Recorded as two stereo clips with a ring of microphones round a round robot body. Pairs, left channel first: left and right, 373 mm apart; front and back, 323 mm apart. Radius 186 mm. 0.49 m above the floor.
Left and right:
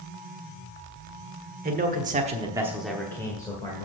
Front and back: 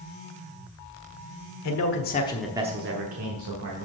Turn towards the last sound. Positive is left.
turn(degrees=165)